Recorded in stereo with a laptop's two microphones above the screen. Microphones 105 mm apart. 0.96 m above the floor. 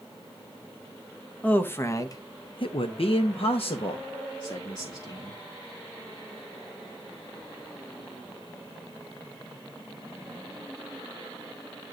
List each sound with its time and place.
1.4 s a man speaking: 15° left (ahead or behind), 0.8 m; by 5.4 s 50° left (ahead or behind), 1.7 m